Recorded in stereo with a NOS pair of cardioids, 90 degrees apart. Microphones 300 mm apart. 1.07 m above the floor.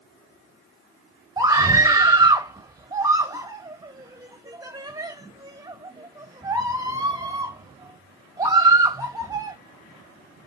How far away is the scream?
About 1.1 m.